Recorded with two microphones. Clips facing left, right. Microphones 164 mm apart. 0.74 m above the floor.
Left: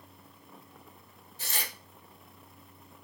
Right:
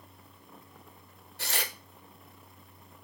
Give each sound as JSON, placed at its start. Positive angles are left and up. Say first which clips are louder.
{"t": 1.4, "sound": "tearing paper", "louder": "right 4 dB", "side_deg": -65, "distance_m": 1.0}